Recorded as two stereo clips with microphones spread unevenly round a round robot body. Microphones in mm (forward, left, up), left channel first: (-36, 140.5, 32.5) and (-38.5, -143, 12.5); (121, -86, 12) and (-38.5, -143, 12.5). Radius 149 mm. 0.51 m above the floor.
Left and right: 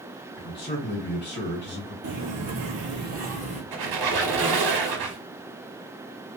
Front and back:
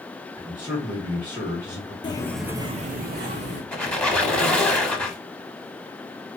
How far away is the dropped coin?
I don't hear a dropped coin.